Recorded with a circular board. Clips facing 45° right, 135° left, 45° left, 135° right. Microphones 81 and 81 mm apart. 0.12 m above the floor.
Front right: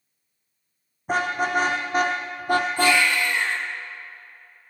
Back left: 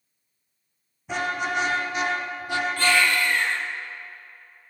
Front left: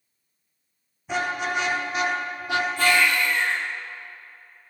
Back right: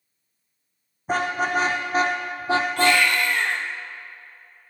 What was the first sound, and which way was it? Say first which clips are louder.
A car horn: front right 4 dB, back right 3 dB; 90° right.